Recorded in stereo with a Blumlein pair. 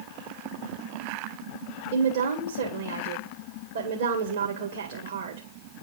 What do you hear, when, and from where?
1.9 s a woman speaking: 65° right, 1.8 m